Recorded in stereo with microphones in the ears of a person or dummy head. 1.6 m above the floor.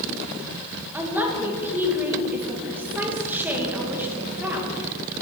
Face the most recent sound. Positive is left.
turn(degrees=-10)  # may be behind; listen again after turning